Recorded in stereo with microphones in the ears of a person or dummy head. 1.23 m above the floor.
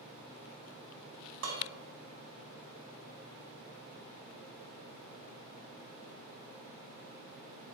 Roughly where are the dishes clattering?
Right.